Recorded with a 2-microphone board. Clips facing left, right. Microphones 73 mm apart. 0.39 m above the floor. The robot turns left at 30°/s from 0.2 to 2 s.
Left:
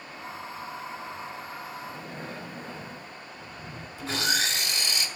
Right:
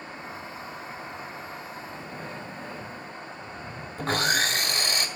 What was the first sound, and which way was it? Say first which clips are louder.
Breathing: even; 30° left (ahead or behind).